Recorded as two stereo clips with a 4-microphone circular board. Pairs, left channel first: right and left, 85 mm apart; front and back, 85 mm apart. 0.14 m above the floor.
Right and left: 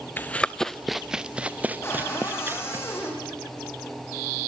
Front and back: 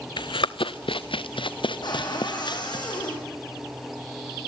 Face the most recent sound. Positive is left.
turn(degrees=-30)